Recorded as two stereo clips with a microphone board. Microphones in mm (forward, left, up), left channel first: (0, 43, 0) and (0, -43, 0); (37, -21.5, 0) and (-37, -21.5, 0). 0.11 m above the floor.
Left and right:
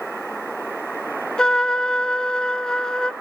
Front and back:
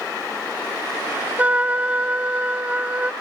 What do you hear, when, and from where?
1.4 s a trumpet: 155° left, 0.5 m